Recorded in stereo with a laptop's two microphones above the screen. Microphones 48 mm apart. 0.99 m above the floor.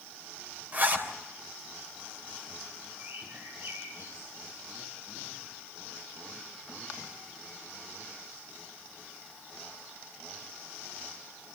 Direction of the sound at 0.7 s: 35° right (ahead or behind).